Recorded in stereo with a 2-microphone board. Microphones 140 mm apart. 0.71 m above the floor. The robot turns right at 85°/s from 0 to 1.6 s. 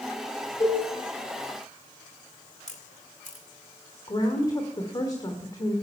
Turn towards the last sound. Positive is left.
turn(degrees=30)  # may be behind; listen again after turning